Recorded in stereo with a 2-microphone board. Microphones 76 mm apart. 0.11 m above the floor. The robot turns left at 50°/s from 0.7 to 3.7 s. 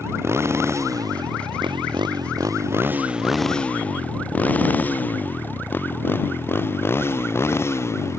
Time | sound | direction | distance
0.0 | a motorcycle | 35° right (ahead or behind) | ?